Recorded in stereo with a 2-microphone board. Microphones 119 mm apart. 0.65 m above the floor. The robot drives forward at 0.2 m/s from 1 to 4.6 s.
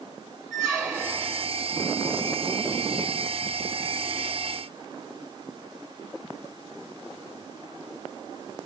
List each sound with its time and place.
0.5 s a squeak: 5° right (ahead or behind), 1.4 m